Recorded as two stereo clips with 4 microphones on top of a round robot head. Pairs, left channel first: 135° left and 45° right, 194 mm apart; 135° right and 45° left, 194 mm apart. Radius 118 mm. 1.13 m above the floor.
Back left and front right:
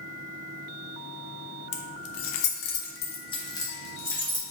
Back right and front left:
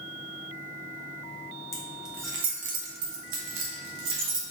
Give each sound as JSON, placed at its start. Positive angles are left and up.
{"t": 1.7, "sound": "keys jangling", "azimuth_deg": 145, "distance_m": 0.6}